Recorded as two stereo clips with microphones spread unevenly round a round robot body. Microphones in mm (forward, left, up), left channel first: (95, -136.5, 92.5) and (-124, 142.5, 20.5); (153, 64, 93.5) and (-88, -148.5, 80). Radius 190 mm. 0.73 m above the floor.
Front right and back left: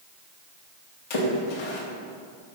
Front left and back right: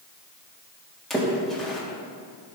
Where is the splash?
50° right, 1.8 m.